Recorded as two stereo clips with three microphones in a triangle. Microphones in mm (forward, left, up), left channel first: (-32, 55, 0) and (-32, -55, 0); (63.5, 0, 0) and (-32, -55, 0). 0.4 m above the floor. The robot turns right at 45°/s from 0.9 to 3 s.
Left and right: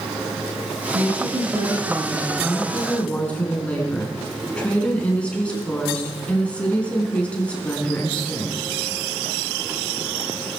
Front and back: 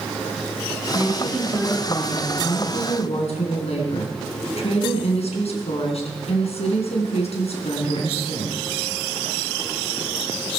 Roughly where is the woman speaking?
Right.